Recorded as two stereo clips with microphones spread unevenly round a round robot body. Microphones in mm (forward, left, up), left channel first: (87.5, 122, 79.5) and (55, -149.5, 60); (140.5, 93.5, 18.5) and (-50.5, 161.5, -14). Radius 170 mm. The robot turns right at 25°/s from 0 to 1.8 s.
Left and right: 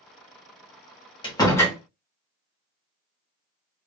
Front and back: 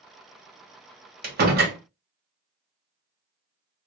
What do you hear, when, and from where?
1.2 s a door slam: 155° left, 1.0 m; by 1.8 s 170° left, 1.0 m